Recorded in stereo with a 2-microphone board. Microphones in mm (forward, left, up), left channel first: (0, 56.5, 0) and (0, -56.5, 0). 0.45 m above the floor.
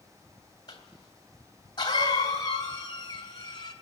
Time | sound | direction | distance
0.7 | a cough | 40° left (ahead or behind) | 3 m